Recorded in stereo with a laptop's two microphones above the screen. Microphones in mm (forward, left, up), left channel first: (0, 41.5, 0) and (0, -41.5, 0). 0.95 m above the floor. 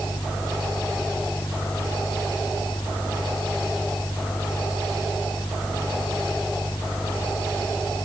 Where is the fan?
60° left (ahead or behind).